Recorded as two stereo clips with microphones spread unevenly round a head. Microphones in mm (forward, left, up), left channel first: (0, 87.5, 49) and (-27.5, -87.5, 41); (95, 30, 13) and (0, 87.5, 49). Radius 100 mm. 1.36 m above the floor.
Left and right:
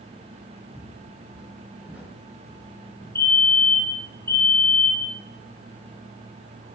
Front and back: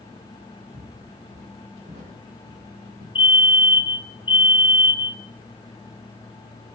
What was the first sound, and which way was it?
Footsteps, 175° right.